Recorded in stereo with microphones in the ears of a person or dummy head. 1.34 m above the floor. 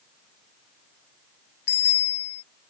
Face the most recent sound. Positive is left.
turn(degrees=55)  # may be behind; listen again after turning